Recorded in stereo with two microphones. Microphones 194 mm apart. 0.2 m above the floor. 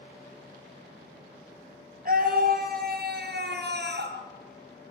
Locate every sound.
2.0 s a scream: 50° right (ahead or behind), 5 m; by 4.2 s 65° right (ahead or behind), 4 m